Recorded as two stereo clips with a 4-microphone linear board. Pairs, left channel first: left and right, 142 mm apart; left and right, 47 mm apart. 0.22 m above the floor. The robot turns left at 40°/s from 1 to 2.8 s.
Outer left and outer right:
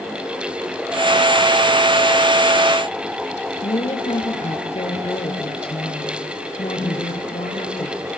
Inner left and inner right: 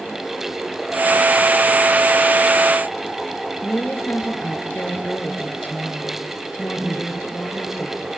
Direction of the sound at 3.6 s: 45° left (ahead or behind).